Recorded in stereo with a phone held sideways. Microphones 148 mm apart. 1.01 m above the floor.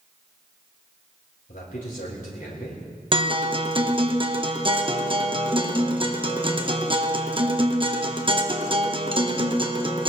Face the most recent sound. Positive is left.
turn(degrees=-35)  # may be behind; listen again after turning